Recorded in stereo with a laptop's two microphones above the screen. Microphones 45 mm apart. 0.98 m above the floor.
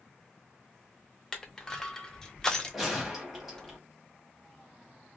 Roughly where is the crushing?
Centre.